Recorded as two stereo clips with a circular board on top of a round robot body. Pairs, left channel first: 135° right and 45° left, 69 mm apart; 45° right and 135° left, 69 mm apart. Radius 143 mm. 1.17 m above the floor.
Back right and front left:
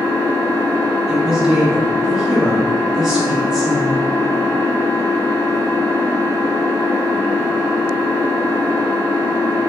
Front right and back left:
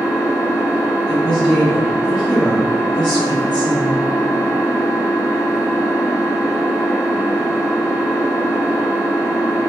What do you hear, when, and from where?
0.0 s an engine running: 95° right, 0.9 m
1.1 s a woman speaking: 40° right, 1.6 m